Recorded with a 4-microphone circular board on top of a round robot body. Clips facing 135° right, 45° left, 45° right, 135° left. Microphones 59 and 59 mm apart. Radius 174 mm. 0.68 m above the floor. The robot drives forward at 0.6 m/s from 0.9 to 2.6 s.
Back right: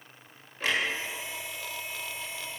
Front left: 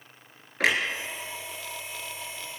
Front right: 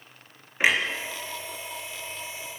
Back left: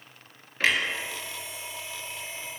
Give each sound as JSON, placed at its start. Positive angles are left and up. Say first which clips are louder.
{"t": 0.6, "sound": "a clunk", "louder": "front left 5 dB, front right 2 dB", "azimuth_deg": 30, "distance_m": 3.5}